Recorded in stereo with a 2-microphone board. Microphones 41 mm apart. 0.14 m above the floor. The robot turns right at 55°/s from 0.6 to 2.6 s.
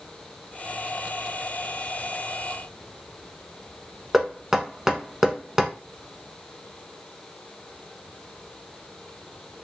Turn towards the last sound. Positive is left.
turn(degrees=-10)  # may be behind; listen again after turning